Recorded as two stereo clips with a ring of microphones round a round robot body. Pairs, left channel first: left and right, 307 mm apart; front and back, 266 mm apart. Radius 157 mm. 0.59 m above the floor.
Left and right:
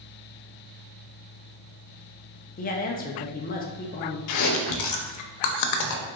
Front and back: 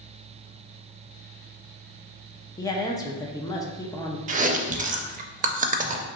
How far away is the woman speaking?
About 0.6 m.